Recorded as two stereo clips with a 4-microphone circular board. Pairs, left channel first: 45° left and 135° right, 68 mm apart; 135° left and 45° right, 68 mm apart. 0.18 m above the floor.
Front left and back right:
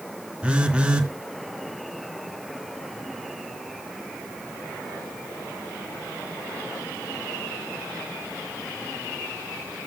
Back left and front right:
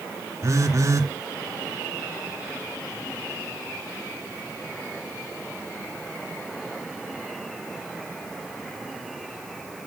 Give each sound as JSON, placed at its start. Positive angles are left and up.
{"t": 0.4, "sound": "a phone buzzing", "azimuth_deg": -65, "distance_m": 2.5}